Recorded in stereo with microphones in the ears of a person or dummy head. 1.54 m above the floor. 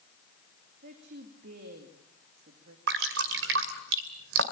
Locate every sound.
0.8 s a woman speaking: 55° right (ahead or behind), 2.5 m
2.9 s dripping: 60° right (ahead or behind), 2 m